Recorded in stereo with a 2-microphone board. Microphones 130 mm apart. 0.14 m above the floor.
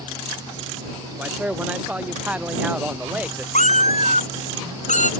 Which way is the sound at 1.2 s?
10° right (ahead or behind).